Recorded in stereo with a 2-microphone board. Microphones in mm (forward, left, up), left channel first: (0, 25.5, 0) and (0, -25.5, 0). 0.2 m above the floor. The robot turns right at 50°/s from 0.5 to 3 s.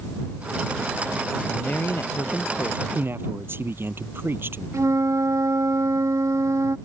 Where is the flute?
75° right (ahead or behind).